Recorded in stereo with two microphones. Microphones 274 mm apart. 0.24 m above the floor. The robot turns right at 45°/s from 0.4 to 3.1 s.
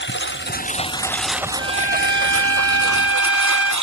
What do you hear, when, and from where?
0.0 s a lawn mower: 140° left; by 3.8 s 100° right
1.6 s a trumpet: 125° right; by 3.7 s 55° right